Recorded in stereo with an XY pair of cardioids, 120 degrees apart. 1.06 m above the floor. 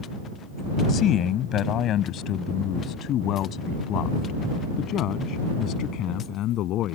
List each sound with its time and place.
0.9 s a man speaking: 60° left; by 6.9 s 70° left